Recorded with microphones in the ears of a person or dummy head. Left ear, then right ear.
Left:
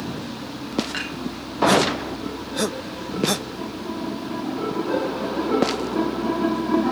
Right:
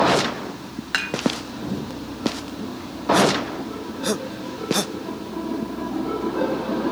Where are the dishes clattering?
35° right (ahead or behind), 1.3 m.